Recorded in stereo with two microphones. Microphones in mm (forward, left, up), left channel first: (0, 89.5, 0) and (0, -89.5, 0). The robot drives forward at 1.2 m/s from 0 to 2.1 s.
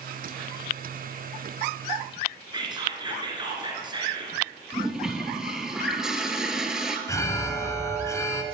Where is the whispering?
25° right (ahead or behind), 1.9 m.